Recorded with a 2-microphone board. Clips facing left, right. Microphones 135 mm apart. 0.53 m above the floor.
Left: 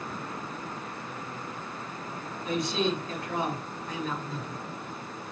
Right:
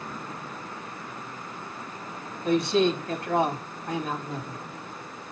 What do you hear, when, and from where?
2.5 s a man speaking: 60° right (ahead or behind), 4 m